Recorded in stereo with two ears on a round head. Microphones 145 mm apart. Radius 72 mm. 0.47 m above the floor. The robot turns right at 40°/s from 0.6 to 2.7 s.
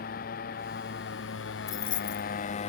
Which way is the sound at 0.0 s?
55° left.